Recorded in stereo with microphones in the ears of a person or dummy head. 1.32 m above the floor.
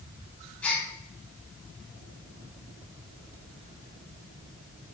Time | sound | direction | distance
0.6 | a gasp | 5° left (ahead or behind) | 3 m